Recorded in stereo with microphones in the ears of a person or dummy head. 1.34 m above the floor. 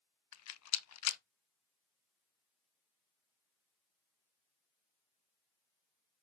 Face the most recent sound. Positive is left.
turn(degrees=75)  # may be behind; listen again after turning